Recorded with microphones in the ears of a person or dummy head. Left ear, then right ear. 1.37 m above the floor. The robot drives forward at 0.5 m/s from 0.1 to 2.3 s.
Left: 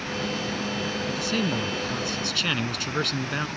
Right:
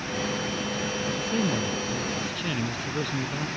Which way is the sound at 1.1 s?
50° left (ahead or behind).